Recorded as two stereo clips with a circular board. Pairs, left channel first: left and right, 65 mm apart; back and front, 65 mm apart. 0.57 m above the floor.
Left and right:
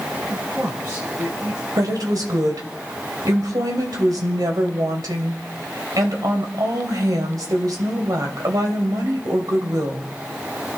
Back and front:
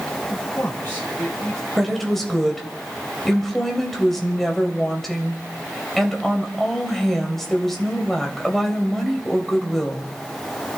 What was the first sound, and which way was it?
A man speaking, 115° right.